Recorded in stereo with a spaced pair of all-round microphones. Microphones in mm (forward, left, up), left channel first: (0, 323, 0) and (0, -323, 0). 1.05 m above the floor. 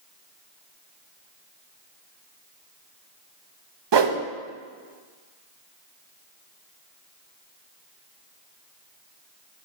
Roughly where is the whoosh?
Right.